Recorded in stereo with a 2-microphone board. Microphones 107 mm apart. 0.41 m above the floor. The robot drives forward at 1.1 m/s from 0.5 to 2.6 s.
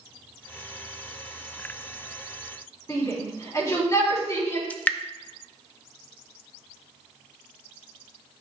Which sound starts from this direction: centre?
Dripping, at 4.7 s.